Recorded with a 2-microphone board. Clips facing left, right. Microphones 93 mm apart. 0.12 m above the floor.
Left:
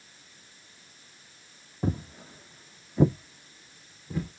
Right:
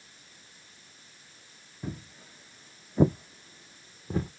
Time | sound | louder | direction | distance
1.8 | footsteps | left 8 dB | 50° left (ahead or behind) | 0.6 m